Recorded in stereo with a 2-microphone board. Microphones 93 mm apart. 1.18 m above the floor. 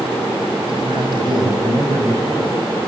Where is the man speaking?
55° right (ahead or behind), 7.5 m; by 2.6 s 35° right (ahead or behind), 7 m.